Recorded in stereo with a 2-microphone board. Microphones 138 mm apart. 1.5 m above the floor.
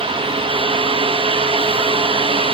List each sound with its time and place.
Only background noise.